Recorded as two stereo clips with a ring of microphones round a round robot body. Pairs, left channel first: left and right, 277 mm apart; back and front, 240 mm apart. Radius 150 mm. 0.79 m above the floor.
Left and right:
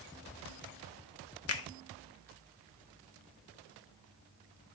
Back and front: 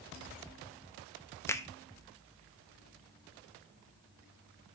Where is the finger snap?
100° left, 0.9 m.